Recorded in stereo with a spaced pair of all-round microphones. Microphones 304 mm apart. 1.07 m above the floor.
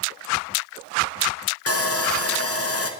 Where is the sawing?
50° left (ahead or behind), 0.7 m.